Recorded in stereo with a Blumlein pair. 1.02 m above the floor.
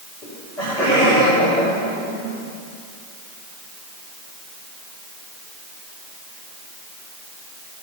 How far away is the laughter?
About 3.5 m.